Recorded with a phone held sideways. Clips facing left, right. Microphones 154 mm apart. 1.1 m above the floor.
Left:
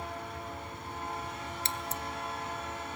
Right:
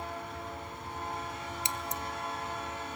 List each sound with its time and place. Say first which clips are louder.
1.6 s scissors: right 1 dB; 15° right (ahead or behind), 0.8 m